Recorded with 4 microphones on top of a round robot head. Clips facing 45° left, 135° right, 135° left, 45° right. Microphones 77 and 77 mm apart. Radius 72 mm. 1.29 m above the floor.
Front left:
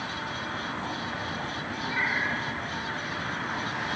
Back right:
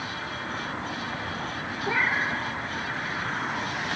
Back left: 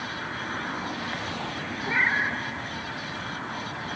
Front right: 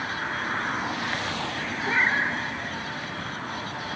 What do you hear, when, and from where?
1.9 s a cat meowing: 125° right, 1.2 m